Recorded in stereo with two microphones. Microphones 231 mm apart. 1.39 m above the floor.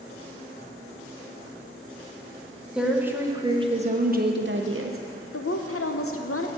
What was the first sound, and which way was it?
A woman speaking, 5° right (ahead or behind).